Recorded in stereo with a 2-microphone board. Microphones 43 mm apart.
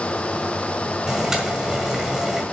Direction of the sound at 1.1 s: 10° right (ahead or behind).